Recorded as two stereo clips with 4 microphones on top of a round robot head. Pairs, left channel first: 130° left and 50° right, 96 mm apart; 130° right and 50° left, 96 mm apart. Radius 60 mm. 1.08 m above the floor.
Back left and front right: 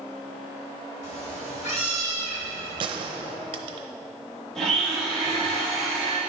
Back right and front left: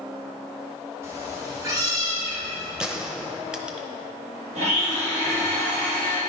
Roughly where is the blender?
Ahead left.